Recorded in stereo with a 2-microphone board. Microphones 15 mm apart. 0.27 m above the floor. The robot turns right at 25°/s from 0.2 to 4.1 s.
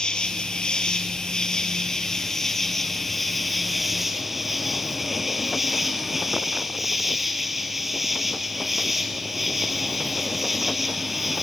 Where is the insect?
95° left, 2.5 m; by 11.4 s 165° right, 2.5 m.